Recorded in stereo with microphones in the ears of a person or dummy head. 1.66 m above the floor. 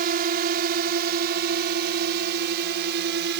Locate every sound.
0.0 s a drone: 45° right (ahead or behind); by 3.4 s 55° right (ahead or behind)